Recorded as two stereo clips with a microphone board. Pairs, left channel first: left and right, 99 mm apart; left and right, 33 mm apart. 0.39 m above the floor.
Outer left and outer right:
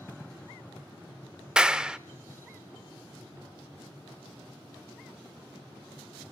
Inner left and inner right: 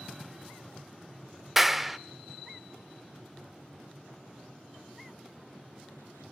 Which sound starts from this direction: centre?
A clap, at 1.6 s.